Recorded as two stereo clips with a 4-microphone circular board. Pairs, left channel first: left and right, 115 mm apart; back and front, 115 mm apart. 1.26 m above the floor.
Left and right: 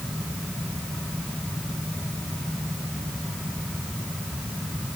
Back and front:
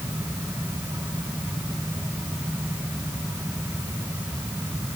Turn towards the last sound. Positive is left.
No sound to turn to.